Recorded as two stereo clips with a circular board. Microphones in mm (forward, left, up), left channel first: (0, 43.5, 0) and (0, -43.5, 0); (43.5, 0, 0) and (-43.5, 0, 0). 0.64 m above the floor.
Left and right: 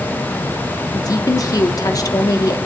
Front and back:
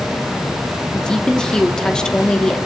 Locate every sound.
0.9 s a woman speaking: 80° left, 1.6 m